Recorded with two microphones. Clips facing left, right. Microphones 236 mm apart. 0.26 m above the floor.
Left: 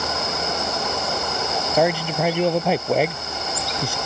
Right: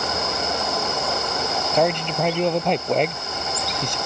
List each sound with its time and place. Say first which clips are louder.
1.7 s a man speaking: left 1 dB; 5° left (ahead or behind)